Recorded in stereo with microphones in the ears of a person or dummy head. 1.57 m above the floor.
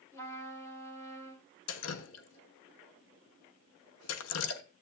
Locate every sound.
0.1 s a trumpet: 20° left (ahead or behind), 3.5 m
1.7 s dripping: 85° left, 1.4 m